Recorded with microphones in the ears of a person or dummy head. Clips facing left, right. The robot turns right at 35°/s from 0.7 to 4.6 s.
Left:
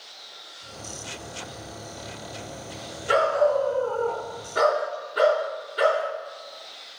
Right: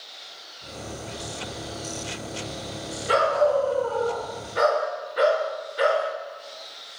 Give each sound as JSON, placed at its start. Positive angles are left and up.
{"t": 3.1, "sound": "a dog barking", "azimuth_deg": 10, "distance_m": 3.5}